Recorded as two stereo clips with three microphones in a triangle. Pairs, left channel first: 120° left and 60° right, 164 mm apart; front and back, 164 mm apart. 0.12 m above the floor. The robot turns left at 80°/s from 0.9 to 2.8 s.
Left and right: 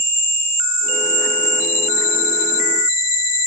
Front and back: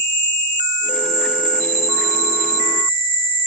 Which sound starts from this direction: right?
An insect, at 0.0 s.